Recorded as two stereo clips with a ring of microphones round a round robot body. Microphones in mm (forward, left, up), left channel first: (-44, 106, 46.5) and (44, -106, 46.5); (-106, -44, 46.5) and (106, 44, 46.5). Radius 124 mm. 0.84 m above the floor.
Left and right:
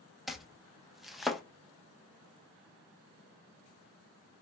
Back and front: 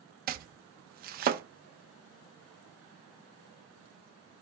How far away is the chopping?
About 0.5 m.